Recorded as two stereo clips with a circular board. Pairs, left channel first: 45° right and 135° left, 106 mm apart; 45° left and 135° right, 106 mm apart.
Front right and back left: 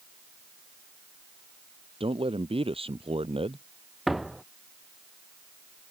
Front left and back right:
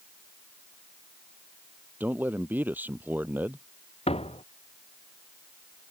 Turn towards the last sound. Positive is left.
turn(degrees=45)